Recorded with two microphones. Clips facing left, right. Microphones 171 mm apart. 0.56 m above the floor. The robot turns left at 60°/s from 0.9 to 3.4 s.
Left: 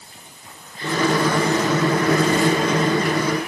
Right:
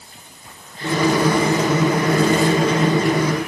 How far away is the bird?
I don't hear a bird.